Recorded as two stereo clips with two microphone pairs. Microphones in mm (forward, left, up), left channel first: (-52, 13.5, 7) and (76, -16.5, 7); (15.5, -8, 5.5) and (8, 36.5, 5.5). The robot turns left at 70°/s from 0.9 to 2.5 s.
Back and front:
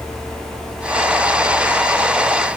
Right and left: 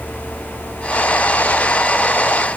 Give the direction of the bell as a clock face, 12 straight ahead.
No bell in this recording.